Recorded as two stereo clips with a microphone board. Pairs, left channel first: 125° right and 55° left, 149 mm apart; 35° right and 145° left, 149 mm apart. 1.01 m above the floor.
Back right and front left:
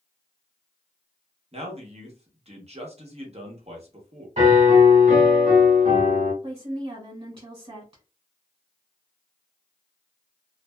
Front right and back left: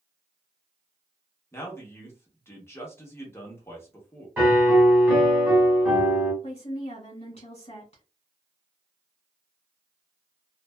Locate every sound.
1.5 s a man speaking: 30° left, 1.0 m
4.4 s a piano: 70° left, 1.2 m
6.4 s a woman speaking: straight ahead, 1.5 m